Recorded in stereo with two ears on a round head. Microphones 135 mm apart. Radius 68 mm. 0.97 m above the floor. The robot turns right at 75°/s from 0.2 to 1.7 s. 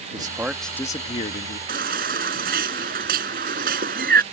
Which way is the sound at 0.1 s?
30° right.